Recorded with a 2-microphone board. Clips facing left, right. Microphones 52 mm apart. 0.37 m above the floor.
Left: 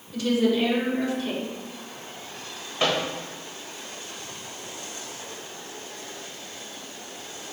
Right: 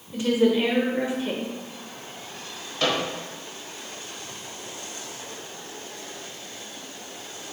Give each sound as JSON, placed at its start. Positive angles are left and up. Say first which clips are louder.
{"t": 0.1, "sound": "a woman speaking", "louder": "right 2 dB", "side_deg": -25, "distance_m": 0.9}
{"t": 2.8, "sound": "a microwave", "louder": "even", "side_deg": 20, "distance_m": 1.2}